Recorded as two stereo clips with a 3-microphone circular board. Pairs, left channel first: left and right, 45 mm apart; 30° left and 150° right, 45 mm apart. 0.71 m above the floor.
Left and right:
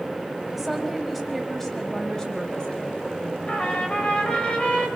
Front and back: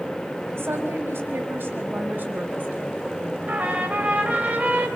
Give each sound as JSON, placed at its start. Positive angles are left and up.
{"t": 0.5, "sound": "a woman speaking", "azimuth_deg": 180, "distance_m": 5.0}
{"t": 3.5, "sound": "a trumpet", "azimuth_deg": 150, "distance_m": 4.0}